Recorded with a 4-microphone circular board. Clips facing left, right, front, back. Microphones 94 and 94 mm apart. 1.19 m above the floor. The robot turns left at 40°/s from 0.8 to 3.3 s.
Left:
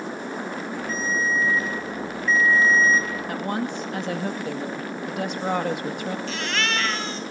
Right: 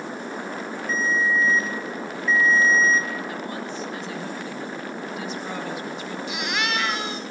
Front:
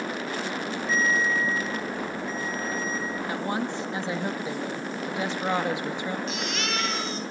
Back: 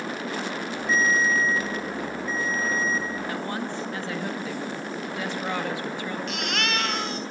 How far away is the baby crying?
About 3 m.